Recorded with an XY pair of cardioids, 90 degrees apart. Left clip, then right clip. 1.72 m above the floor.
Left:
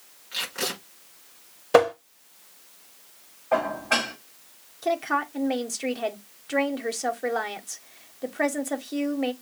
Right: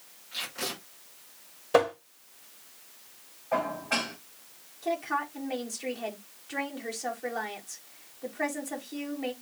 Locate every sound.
0.3 s tape being pulled: 60° left, 5.5 m
1.7 s tapping: 45° left, 1.2 m
3.5 s dishes clattering: 65° left, 3.5 m
4.8 s a woman speaking: 65° left, 1.3 m